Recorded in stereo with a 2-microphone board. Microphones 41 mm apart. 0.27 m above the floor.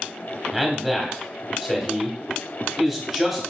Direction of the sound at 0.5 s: 5° right (ahead or behind).